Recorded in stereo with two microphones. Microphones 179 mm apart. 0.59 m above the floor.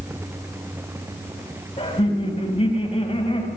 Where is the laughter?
35° left (ahead or behind), 4.5 m.